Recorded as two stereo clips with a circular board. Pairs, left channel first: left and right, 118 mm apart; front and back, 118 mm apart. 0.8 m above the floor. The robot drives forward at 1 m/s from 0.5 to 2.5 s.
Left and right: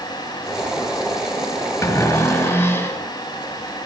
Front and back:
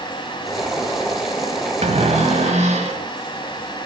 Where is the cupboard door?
155° left, 2 m; by 3.0 s 160° left, 3 m.